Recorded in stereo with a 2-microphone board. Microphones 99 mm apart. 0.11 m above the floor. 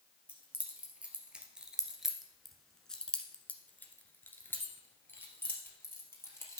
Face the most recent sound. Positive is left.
turn(degrees=20)  # may be behind; listen again after turning